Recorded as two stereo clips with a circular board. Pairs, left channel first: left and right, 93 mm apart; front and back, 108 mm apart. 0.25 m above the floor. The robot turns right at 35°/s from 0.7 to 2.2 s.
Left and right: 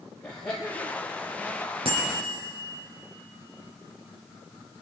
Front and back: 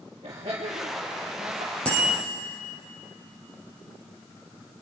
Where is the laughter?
175° left, 4 m; by 1.8 s 150° right, 4 m.